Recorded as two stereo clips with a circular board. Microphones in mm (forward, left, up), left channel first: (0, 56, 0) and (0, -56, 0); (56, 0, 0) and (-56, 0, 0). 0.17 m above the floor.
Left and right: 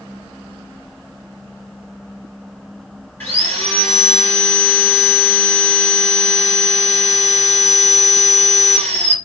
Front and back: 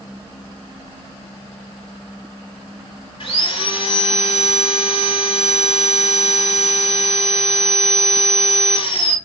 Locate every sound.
3.2 s sawing: 20° left, 2 m